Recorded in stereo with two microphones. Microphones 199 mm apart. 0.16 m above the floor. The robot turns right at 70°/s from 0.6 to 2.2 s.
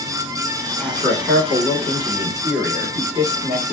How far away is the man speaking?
About 1.2 m.